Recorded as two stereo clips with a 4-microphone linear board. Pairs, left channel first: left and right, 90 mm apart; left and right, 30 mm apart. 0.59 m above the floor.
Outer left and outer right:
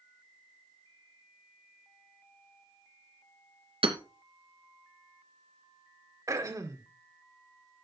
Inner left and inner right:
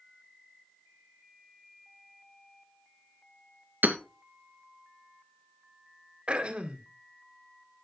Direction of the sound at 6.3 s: 35° right (ahead or behind).